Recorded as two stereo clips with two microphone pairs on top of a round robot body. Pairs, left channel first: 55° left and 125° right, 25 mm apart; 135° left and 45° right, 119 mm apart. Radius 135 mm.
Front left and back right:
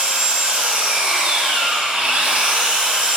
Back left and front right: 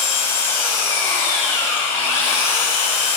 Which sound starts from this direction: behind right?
An engine running, at 0.0 s.